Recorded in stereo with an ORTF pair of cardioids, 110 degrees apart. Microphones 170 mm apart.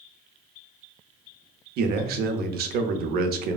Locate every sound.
1.8 s a man speaking: 65° right, 0.5 m